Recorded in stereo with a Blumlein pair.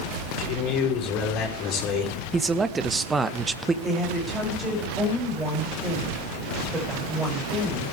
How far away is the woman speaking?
About 7 m.